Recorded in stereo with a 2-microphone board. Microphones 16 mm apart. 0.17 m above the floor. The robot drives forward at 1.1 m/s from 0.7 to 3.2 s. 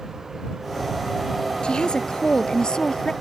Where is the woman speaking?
60° left (ahead or behind); by 3.1 s 45° left (ahead or behind).